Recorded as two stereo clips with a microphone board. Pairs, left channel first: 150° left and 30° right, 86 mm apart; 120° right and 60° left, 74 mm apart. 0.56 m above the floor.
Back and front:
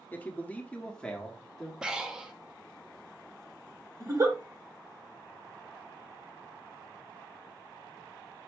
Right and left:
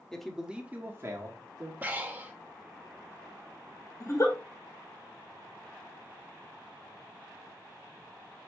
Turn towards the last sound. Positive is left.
turn(degrees=-80)